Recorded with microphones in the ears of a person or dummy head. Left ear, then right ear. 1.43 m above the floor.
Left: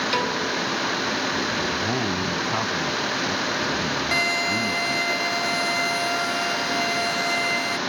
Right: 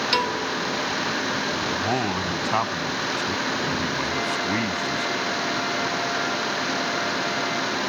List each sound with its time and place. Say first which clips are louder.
0.1 s a piano: even; 25° right (ahead or behind)
1.7 s a man speaking: even; 50° right (ahead or behind)
4.1 s a violin: left 3 dB; 70° left (ahead or behind)